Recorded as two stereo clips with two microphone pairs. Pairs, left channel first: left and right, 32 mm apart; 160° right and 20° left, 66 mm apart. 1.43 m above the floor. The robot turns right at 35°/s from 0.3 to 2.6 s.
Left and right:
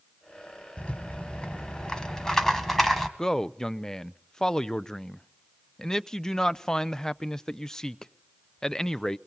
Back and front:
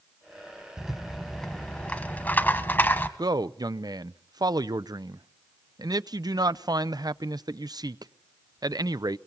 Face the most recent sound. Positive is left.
turn(degrees=10)